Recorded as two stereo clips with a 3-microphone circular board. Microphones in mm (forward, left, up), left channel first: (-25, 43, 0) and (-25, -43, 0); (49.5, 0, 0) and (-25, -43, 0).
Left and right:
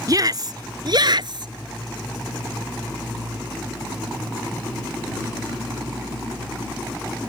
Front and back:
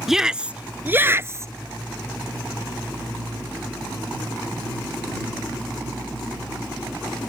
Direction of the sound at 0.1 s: 65° right.